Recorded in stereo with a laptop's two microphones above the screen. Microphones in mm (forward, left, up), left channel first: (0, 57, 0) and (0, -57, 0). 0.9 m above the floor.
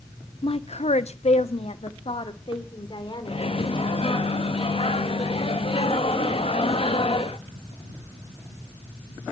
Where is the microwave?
55° left (ahead or behind), 1.0 m.